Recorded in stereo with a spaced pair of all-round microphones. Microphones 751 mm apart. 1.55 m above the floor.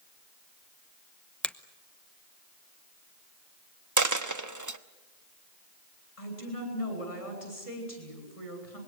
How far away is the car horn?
No car horn in this recording.